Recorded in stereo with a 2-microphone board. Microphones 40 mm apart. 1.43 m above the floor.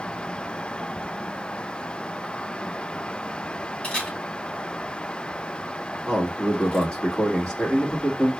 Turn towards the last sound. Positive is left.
turn(degrees=25)  # may be behind; listen again after turning